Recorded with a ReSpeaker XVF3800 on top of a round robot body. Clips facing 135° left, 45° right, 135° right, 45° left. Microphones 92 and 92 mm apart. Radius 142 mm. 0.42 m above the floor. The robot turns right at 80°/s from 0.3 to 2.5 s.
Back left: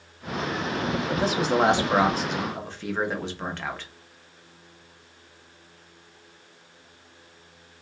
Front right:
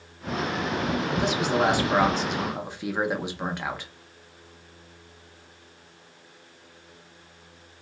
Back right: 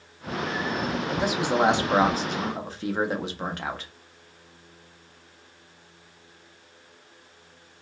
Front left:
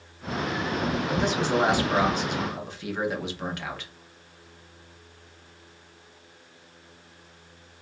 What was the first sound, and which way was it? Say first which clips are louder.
A man speaking: back left 3 dB, even; 130° left.